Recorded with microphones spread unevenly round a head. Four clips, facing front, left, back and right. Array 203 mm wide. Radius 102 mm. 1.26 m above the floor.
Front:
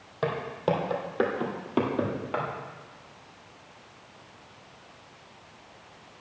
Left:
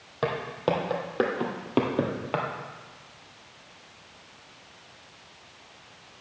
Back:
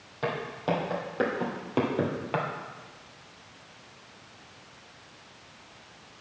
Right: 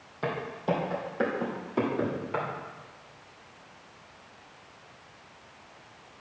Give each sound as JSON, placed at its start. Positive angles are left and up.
{"t": 0.2, "sound": "footsteps", "azimuth_deg": 70, "distance_m": 3.0}